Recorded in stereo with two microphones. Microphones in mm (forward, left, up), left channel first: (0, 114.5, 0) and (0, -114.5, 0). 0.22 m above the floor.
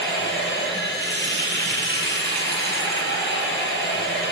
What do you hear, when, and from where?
0.0 s running water: 55° left (ahead or behind), 6 m